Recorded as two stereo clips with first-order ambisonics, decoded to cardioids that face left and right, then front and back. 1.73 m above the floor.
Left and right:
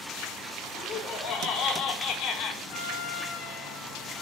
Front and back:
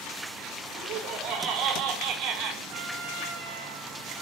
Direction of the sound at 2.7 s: 135° left.